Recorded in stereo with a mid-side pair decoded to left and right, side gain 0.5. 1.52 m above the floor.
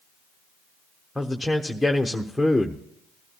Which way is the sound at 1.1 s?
5° left.